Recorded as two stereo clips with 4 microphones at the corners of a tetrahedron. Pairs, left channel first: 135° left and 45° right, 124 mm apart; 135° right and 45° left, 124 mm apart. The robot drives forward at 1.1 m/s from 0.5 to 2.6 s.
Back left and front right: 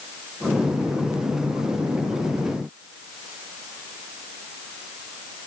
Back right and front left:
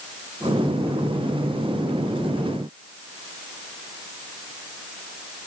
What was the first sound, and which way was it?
Only background noise.